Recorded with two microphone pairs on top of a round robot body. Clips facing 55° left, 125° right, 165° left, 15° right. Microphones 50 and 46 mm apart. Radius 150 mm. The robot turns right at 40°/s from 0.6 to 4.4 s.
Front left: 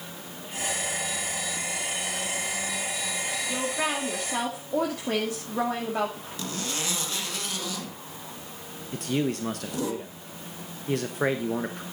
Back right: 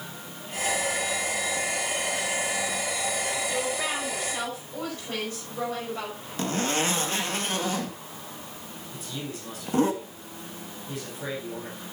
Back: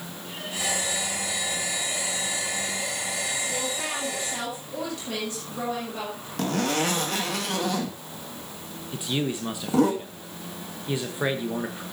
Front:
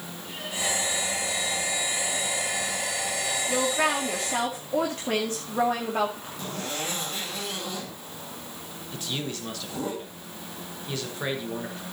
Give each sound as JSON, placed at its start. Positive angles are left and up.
{"t": 3.5, "sound": "a woman speaking", "azimuth_deg": -5, "distance_m": 2.0}
{"t": 6.4, "sound": "a zipper", "azimuth_deg": -175, "distance_m": 2.0}
{"t": 8.9, "sound": "a man speaking", "azimuth_deg": 90, "distance_m": 1.2}